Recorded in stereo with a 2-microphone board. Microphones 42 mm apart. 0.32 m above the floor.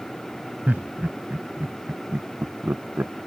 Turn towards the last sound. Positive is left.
turn(degrees=-55)  # may be behind; listen again after turning